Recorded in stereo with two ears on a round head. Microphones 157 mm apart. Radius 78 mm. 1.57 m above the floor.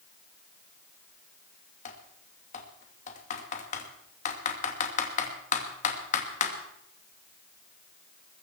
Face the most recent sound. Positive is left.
turn(degrees=45)  # may be behind; listen again after turning